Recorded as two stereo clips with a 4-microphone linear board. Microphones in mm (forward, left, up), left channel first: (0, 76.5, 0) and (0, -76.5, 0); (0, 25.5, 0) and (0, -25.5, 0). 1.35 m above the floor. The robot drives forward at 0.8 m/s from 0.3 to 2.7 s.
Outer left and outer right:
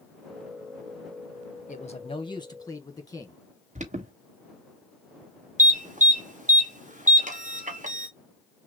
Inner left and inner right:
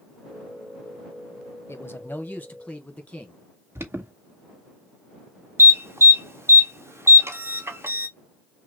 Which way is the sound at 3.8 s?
50° right (ahead or behind).